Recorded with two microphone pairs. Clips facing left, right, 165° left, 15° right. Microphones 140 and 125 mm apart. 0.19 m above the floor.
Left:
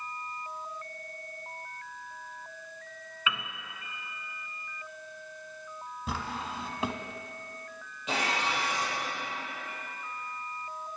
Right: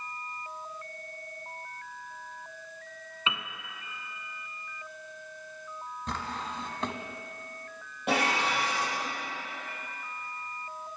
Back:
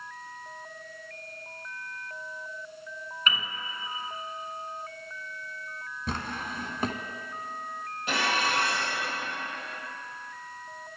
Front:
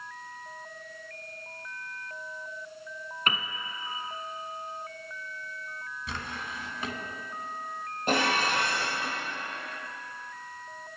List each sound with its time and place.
3.3 s a piano: 30° right, 0.8 m
6.1 s a drawer: 165° left, 0.7 m
8.1 s dishes clattering: 55° right, 4 m